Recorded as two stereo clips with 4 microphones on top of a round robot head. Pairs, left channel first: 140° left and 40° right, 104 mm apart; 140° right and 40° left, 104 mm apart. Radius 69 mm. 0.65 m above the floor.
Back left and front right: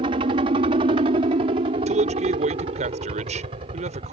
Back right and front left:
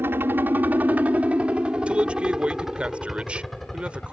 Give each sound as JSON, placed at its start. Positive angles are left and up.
{"t": 0.0, "sound": "a helicopter", "azimuth_deg": -25}
{"t": 1.9, "sound": "a man speaking", "azimuth_deg": -40}